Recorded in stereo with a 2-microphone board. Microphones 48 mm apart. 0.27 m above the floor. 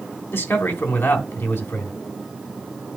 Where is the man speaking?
55° left (ahead or behind), 2.5 m.